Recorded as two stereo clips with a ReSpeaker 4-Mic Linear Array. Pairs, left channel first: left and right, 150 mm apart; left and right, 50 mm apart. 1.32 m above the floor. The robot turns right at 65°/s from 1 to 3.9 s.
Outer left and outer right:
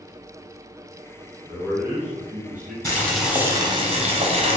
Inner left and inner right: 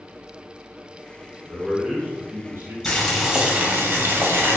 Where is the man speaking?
170° left, 1.3 m; by 2.8 s 100° right, 1.3 m.